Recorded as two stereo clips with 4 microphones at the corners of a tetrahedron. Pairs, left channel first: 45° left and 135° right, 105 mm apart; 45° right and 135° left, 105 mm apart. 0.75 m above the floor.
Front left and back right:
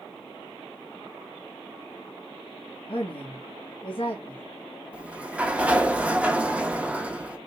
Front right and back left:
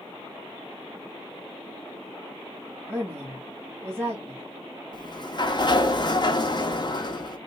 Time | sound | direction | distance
2.9 | a woman speaking | 65° left | 1.7 m
4.9 | a sliding door | 60° right | 0.6 m